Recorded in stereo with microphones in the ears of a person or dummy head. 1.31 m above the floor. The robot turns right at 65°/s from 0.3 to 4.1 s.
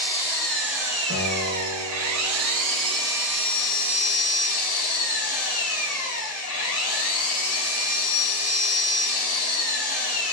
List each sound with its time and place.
0.0 s an engine running: 155° left, 1.6 m; by 10.3 s 45° left, 1.6 m
1.1 s a guitar: 115° left, 0.8 m; by 3.1 s 115° right, 0.8 m